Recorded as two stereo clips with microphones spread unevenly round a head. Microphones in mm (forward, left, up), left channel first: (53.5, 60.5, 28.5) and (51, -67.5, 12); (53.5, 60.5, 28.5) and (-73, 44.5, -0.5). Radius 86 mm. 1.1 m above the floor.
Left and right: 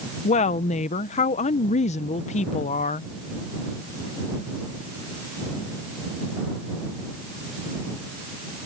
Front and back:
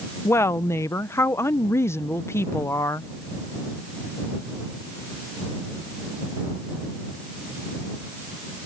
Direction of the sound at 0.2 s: 85° left.